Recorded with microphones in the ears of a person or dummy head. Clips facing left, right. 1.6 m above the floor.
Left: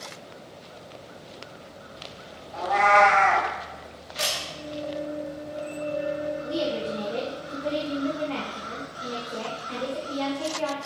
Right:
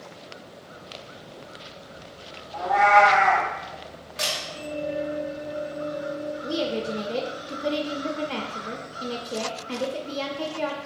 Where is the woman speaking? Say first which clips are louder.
Right 3 dB; 50° right (ahead or behind), 0.6 m.